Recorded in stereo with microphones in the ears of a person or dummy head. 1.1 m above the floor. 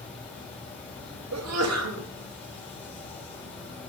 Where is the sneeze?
65° right (ahead or behind), 1.4 m.